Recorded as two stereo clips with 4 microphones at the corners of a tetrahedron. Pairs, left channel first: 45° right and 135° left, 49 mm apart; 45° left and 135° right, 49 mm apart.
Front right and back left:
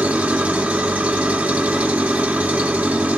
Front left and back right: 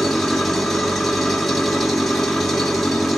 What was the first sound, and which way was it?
An engine running, 130° left.